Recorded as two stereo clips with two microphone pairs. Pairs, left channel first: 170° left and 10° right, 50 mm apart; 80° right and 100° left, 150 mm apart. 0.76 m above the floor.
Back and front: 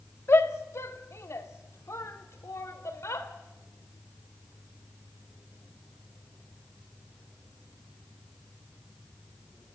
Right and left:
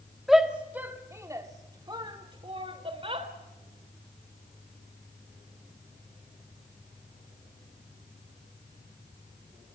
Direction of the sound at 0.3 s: 170° right.